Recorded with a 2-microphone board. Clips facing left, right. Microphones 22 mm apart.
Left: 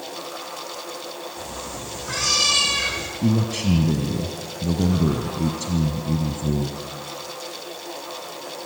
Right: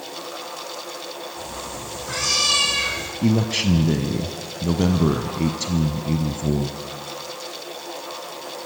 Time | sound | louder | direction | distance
1.4 | a cat meowing | right 1 dB | 10° left (ahead or behind) | 8.5 m
3.2 | a man speaking | right 2 dB | 30° right (ahead or behind) | 1.3 m